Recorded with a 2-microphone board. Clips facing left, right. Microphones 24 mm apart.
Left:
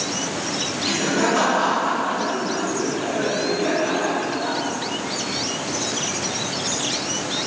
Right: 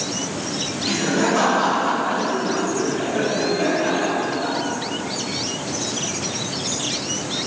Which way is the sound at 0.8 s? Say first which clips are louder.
Right 1 dB; 20° left (ahead or behind).